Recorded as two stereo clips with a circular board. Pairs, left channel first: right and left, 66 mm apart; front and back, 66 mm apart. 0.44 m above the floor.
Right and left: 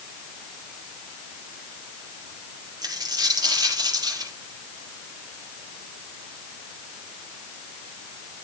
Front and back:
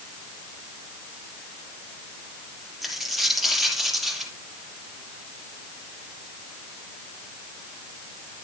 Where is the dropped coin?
95° left, 5 m.